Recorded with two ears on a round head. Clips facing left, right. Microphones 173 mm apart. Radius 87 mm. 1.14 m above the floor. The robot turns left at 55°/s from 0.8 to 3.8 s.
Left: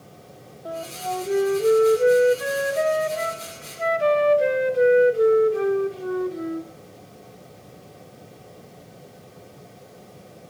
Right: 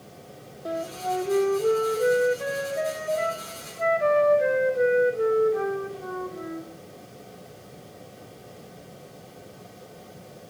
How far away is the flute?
About 2.5 m.